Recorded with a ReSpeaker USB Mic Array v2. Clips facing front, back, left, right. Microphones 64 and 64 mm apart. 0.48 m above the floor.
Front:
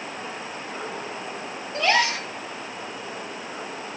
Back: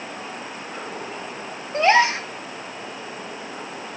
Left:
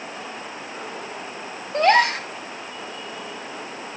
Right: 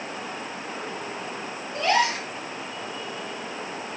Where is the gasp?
120° left, 1.5 m.